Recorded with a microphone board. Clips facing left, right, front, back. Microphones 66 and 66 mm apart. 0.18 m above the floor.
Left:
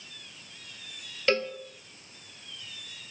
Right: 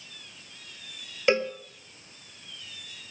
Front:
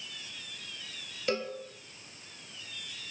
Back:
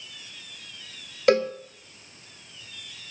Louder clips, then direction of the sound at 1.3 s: Right 3 dB, back 12 dB; 160° right.